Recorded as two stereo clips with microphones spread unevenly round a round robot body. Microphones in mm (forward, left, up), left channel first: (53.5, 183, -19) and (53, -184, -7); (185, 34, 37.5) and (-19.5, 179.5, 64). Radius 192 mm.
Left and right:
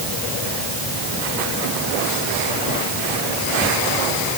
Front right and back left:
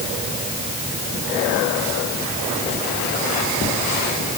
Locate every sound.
Only background noise.